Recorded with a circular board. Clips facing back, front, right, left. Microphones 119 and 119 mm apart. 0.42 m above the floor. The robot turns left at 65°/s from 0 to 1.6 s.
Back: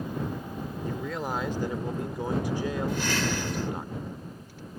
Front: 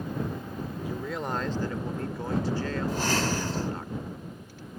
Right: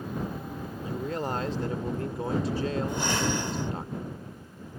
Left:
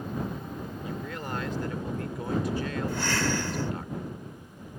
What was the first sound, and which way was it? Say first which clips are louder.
A man speaking: back 1 dB, right 7 dB; 70° right.